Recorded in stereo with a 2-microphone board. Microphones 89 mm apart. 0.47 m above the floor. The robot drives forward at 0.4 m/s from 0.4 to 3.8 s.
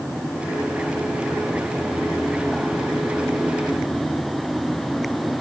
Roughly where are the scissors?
No scissors in this recording.